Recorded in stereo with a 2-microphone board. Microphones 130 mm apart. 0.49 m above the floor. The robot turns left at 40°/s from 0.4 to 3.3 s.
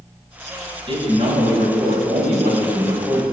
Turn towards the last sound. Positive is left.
turn(degrees=-145)